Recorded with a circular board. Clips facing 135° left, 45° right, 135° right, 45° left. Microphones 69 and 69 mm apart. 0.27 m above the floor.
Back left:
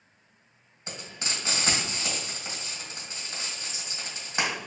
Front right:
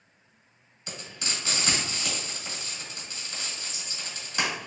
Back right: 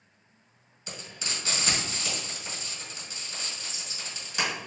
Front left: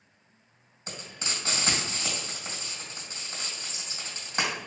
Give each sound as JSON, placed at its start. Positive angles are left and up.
{"t": 0.9, "sound": "frying", "azimuth_deg": 85, "distance_m": 1.7}